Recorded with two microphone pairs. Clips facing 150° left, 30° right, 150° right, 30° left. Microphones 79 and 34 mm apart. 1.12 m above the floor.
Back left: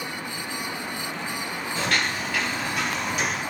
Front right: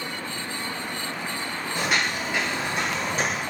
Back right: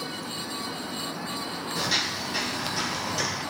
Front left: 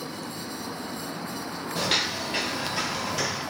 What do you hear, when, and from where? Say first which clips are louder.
1.8 s footsteps: front right 1 dB, front left 2 dB; 45° left, 1.5 m; by 3.4 s 40° right, 1.3 m